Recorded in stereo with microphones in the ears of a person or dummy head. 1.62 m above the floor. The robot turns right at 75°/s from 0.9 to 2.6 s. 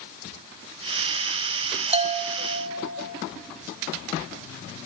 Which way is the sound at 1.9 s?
145° right.